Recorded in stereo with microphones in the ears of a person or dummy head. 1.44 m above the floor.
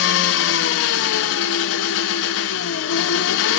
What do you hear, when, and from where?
0.0 s an engine running: 80° left, 1.4 m